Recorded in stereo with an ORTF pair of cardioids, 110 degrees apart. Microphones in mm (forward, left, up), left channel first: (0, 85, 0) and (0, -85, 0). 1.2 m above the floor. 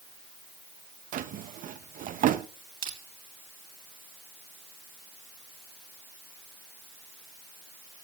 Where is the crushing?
60° right, 2.5 m.